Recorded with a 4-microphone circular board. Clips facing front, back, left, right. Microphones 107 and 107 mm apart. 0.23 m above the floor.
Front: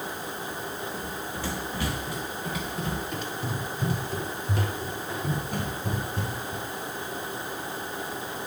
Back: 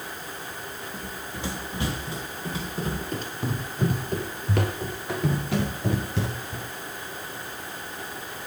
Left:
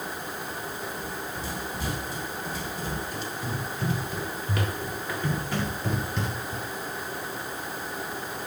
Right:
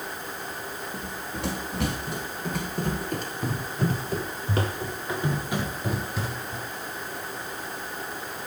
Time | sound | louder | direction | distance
0.9 | running footsteps | front 2 dB, even | 105° right | 3.5 m